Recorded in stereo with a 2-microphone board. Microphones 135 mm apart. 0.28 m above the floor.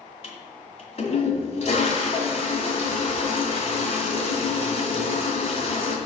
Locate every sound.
0.2 s a toilet flushing: 45° left (ahead or behind), 1.9 m